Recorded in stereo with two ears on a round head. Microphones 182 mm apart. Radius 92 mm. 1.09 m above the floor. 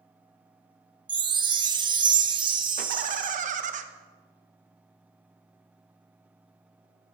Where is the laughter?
40° right (ahead or behind), 0.9 m.